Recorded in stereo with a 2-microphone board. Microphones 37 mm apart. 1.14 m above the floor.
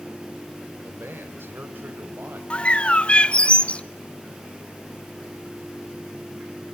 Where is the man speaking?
80° right, 4 m; by 2.4 s 65° right (ahead or behind), 6 m.